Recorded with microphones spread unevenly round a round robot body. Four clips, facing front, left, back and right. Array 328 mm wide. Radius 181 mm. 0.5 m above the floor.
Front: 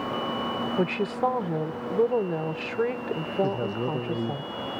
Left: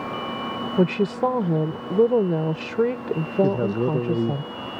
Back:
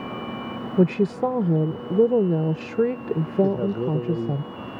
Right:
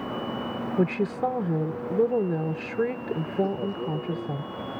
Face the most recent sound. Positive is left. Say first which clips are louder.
# left 7 dB, back 4 dB
turn(degrees=85)